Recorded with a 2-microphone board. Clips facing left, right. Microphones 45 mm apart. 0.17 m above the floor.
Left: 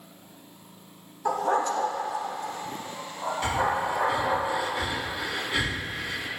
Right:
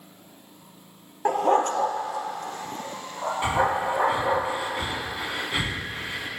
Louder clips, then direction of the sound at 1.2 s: Right 4 dB; 50° right (ahead or behind).